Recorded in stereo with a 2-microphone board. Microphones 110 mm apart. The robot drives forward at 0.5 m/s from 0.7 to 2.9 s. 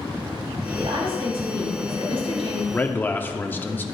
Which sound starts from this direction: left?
A man speaking, at 2.7 s.